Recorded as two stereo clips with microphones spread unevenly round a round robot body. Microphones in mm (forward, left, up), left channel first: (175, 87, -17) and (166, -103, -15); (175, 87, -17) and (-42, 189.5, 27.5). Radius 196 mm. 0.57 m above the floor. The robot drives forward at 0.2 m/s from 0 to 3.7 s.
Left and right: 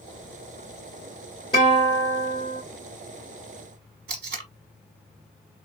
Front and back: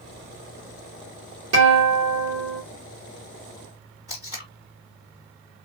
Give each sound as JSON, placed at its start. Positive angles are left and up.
{"t": 1.5, "sound": "a guitar", "azimuth_deg": 160, "distance_m": 2.0}
{"t": 4.1, "sound": "tape being pulled", "azimuth_deg": -120, "distance_m": 0.8}